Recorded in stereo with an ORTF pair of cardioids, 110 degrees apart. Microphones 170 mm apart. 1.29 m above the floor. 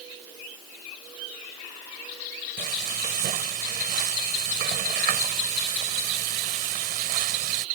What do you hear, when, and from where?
2.6 s frying: 70° right